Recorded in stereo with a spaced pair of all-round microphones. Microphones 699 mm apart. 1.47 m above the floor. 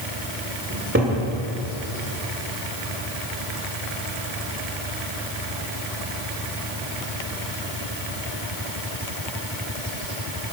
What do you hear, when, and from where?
0.7 s a cupboard door: 15° right (ahead or behind), 2.5 m